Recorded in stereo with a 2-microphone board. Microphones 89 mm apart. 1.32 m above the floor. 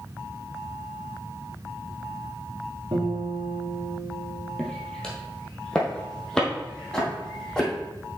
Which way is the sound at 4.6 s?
5° left (ahead or behind).